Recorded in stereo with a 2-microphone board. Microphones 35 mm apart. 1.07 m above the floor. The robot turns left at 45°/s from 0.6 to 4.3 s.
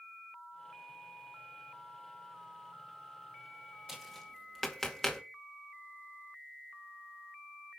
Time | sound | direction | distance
3.9 | tapping | 5° right (ahead or behind) | 2 m